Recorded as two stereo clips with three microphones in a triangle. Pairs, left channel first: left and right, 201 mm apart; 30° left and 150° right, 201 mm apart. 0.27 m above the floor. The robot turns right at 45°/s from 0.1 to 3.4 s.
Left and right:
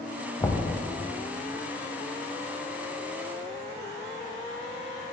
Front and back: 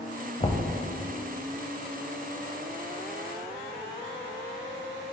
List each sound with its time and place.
0.4 s knocking: 30° left, 0.6 m; by 0.7 s 40° left, 0.6 m